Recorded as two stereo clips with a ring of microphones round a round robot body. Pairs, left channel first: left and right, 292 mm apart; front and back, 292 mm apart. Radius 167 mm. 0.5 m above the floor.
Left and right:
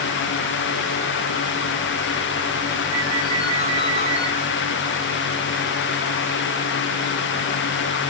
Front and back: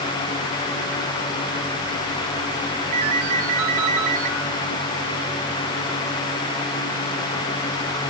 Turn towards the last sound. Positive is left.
turn(degrees=-160)